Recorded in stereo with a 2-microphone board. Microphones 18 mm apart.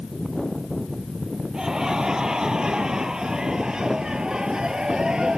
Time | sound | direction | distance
1.5 | laughter | 40° right (ahead or behind) | ?